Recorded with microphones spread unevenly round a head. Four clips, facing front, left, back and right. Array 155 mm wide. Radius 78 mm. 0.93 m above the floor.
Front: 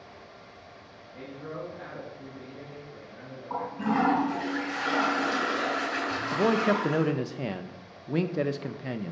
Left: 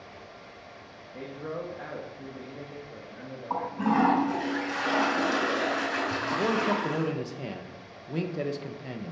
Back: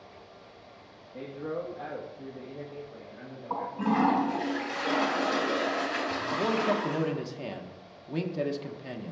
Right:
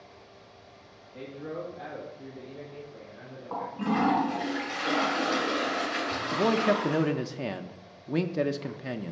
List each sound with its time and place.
1.1 s a man speaking: 155° left, 1.3 m; by 4.5 s 95° left, 2 m
3.5 s a toilet flushing: 130° left, 4.5 m
6.3 s a man speaking: 60° right, 0.5 m